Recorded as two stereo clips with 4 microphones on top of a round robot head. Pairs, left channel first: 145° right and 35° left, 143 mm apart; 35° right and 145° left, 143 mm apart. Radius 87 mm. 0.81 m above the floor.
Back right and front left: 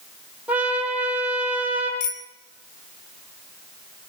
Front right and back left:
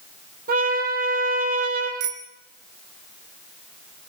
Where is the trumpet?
115° left, 5 m.